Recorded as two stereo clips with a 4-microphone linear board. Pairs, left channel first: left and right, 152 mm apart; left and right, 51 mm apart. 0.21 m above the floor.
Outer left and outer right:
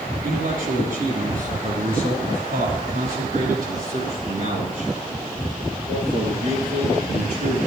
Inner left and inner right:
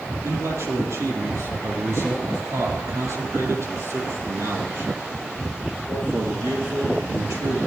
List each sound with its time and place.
0.2 s a man speaking: 65° right (ahead or behind), 7.5 m; by 7.6 s 80° right, 10 m